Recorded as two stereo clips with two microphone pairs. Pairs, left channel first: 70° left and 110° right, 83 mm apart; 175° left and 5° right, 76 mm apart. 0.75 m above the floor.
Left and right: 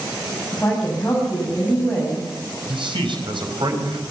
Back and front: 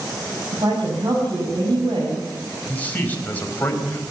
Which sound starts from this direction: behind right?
A man speaking, at 2.7 s.